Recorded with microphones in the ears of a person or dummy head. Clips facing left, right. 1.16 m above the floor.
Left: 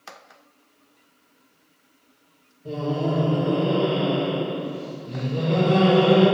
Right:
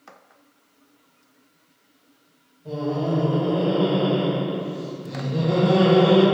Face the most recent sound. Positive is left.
turn(degrees=-75)  # may be behind; listen again after turning